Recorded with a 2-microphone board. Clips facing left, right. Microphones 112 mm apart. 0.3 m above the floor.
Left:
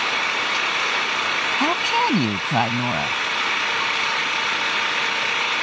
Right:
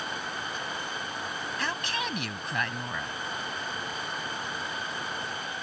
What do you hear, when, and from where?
0.0 s an engine running: 75° left (ahead or behind)
1.6 s a woman speaking: 55° left (ahead or behind)